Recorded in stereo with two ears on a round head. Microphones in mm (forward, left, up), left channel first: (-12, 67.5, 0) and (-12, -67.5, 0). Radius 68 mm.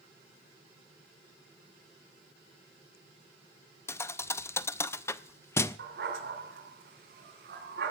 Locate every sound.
3.9 s a thud: 15° left (ahead or behind), 0.5 m
5.8 s a dog barking: 75° right (ahead or behind), 4 m